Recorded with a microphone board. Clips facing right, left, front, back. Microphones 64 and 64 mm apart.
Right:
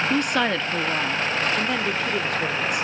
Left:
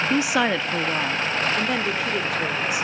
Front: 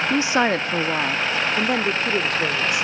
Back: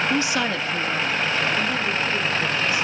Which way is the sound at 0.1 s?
25° left.